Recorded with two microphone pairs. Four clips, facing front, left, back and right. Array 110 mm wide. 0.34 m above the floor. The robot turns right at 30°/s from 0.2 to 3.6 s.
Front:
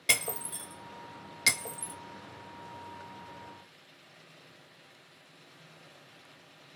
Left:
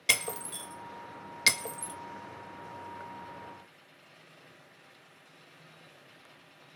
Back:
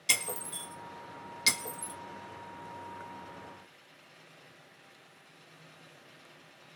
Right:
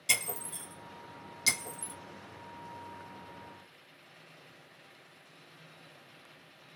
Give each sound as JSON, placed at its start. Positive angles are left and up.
{"t": 0.1, "sound": "breaking glass", "azimuth_deg": 40, "distance_m": 1.0}